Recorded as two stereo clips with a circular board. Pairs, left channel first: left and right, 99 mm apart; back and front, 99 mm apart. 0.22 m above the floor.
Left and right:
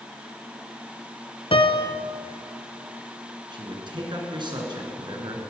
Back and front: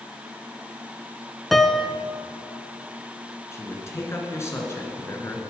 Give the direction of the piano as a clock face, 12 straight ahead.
9 o'clock.